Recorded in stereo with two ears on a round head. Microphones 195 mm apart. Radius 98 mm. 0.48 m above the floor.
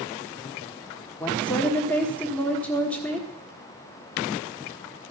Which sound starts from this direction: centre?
A woman speaking, at 1.2 s.